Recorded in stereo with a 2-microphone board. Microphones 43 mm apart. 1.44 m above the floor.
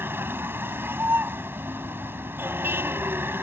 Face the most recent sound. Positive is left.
turn(degrees=-75)  # may be behind; listen again after turning